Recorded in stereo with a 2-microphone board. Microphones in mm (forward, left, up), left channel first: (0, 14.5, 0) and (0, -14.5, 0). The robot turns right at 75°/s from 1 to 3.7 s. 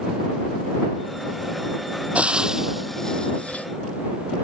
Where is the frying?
50° right (ahead or behind); by 3.6 s 65° left (ahead or behind).